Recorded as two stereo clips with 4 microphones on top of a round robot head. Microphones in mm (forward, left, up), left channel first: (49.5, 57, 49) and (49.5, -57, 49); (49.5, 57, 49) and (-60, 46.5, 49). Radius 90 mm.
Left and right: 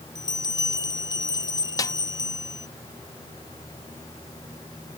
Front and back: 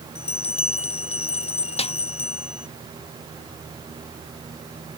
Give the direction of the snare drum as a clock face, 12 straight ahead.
11 o'clock.